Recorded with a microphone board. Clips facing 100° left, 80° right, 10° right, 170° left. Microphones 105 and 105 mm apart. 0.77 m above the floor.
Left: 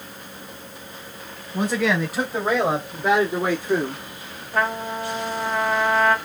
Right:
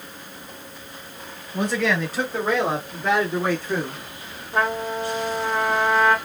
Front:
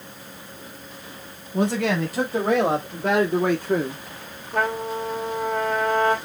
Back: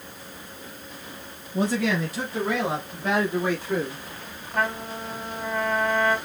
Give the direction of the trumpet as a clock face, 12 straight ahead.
12 o'clock.